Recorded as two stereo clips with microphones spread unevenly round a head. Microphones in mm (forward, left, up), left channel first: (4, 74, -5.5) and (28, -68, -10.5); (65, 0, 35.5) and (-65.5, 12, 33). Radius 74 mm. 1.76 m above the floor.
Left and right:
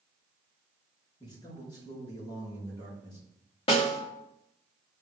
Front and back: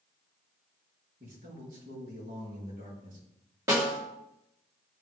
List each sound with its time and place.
1.2 s a man speaking: 160° left, 4.5 m
3.7 s a snare drum: 120° left, 1.8 m